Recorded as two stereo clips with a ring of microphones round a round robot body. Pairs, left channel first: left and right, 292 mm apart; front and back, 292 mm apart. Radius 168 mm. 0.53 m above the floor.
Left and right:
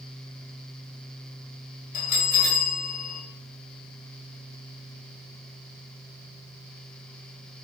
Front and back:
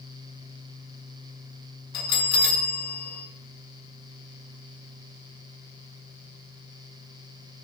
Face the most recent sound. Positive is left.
turn(degrees=25)